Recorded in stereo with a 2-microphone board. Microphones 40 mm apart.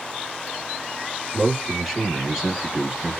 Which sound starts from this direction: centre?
A man speaking, at 1.3 s.